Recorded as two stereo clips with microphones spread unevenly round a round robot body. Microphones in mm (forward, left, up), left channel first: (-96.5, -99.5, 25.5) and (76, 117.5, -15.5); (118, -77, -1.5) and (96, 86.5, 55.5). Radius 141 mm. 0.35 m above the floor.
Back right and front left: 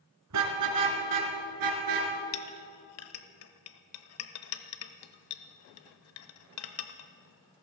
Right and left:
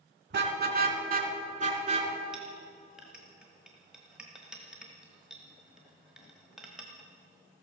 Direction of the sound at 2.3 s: 165° right.